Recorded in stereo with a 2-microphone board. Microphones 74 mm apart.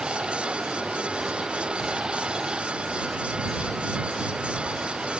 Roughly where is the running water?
Centre.